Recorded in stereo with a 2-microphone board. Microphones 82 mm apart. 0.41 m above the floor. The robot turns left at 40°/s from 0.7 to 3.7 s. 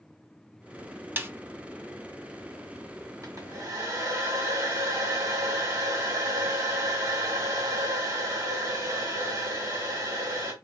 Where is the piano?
No piano in this recording.